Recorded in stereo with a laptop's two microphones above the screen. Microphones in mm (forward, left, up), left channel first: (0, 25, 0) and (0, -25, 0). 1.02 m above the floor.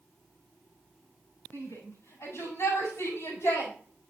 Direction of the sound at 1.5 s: 65° left (ahead or behind).